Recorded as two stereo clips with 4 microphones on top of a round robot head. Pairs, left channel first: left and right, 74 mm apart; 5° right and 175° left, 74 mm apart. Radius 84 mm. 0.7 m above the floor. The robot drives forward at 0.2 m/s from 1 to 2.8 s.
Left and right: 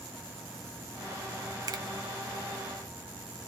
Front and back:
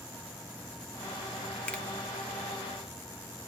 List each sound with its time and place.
1.7 s a finger snap: 75° right, 1.2 m